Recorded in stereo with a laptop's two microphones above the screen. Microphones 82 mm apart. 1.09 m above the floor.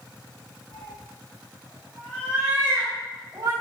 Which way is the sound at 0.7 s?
50° left (ahead or behind).